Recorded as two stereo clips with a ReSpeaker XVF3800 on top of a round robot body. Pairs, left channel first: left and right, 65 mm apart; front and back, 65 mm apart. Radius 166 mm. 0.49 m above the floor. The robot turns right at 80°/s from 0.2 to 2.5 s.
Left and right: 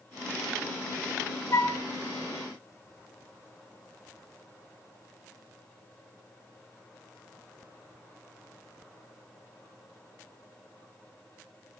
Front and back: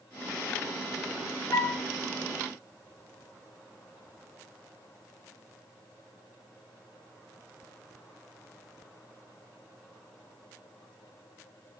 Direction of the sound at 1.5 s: 45° left.